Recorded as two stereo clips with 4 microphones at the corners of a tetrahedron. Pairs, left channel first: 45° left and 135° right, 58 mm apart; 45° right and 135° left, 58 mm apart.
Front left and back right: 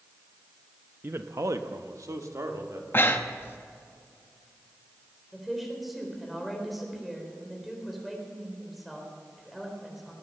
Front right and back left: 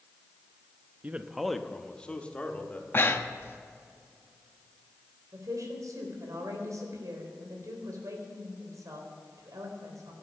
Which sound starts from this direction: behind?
A man speaking, at 1.0 s.